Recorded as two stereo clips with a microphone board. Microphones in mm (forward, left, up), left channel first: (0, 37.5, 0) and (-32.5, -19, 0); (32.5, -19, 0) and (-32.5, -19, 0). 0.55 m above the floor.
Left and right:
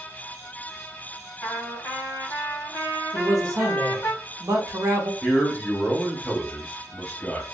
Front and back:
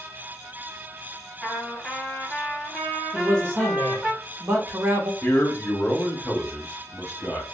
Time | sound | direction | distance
1.4 | a trumpet | 85° left | 1.7 m
3.1 | a man speaking | 135° right | 1.1 m
5.2 | a man speaking | 10° left | 1.0 m